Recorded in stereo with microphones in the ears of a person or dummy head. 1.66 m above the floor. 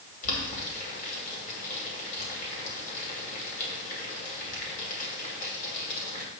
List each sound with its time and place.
0.2 s boiling: 50° left (ahead or behind), 3 m